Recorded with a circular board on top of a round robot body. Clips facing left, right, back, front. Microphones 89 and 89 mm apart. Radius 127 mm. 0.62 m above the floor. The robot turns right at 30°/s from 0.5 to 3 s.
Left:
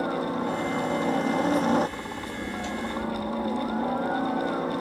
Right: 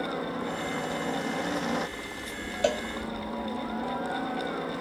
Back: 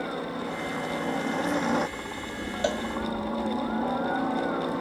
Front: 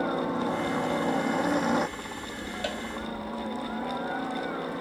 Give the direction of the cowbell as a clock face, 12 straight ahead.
4 o'clock.